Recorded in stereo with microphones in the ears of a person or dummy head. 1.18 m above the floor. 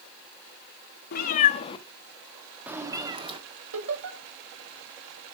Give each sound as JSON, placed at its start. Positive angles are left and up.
{"t": 1.1, "sound": "a cat meowing", "side_deg": 60, "distance_m": 1.2}
{"t": 3.7, "sound": "laughter", "side_deg": -80, "distance_m": 6.5}